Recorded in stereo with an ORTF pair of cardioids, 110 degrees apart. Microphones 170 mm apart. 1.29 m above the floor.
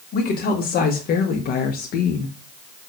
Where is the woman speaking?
65° left, 2.5 m; by 2.4 s 70° left, 1.0 m.